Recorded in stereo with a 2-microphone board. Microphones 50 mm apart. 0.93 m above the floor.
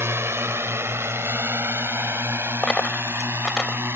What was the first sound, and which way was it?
A drone, 55° right (ahead or behind).